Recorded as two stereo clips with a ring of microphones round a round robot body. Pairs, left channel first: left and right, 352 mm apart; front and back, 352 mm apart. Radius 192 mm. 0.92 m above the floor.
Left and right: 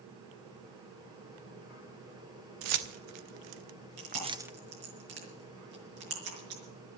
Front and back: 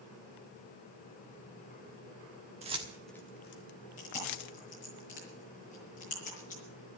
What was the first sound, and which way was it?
Keys jangling, 105° right.